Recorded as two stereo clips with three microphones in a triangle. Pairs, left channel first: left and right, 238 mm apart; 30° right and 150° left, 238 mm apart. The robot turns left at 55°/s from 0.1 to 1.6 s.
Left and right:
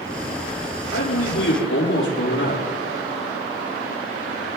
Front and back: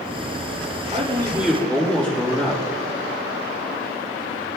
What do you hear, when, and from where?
0.9 s a man speaking: 95° left, 6 m; by 2.6 s 55° left, 6 m